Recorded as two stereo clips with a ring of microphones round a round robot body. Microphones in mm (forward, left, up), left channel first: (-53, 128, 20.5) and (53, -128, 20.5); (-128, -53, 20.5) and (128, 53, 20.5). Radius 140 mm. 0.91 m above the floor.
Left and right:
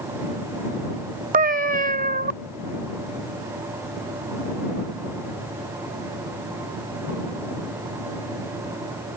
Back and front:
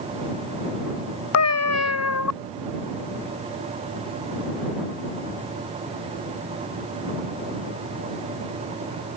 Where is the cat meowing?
125° right.